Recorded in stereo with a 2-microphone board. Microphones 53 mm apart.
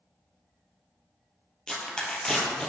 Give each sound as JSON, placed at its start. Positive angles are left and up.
{"t": 1.7, "sound": "tearing paper", "side_deg": 15, "distance_m": 2.0}